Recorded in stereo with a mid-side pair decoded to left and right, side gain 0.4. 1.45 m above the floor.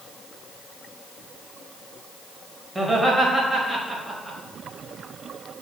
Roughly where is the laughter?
Ahead.